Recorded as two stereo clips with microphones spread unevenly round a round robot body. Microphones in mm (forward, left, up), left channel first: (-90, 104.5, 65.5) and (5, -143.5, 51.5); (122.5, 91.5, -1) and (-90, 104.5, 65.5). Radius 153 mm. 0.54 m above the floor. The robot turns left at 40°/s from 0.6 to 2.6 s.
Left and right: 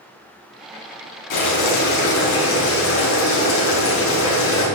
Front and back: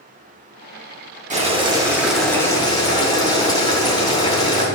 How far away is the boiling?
About 2.5 m.